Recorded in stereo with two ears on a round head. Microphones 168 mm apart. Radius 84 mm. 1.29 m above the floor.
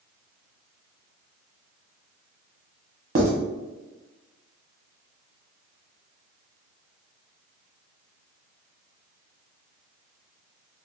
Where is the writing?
35° right (ahead or behind), 0.9 m.